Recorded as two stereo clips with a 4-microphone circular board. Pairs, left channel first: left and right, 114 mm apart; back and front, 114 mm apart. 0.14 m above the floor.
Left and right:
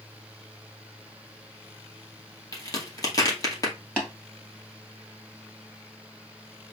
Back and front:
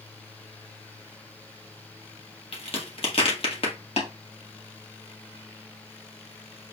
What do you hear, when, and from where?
2.5 s a crack: 150° left, 2 m
4.0 s tapping: 175° left, 2.5 m